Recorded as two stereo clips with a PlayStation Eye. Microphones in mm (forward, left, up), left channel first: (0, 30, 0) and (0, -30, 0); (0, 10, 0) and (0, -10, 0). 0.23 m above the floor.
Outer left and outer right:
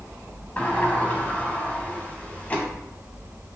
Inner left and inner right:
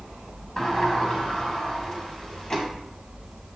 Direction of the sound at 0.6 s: 25° left (ahead or behind).